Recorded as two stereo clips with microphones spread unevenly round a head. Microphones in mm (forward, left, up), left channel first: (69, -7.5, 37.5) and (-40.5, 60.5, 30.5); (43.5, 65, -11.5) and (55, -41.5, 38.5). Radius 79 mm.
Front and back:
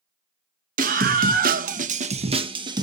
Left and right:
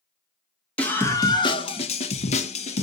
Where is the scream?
175° left, 1.3 m; by 2.8 s 90° left, 1.6 m.